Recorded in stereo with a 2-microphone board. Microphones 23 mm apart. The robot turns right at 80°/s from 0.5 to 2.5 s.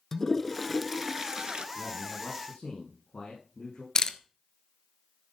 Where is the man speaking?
5° right, 7 m; by 3.9 s 55° left, 7 m.